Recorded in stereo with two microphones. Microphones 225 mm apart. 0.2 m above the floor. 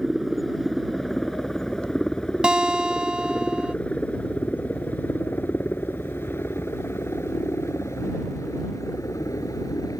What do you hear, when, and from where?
0.0 s a helicopter: centre (ahead or behind); by 10.0 s 15° left (ahead or behind)
2.4 s a guitar: 5° right (ahead or behind)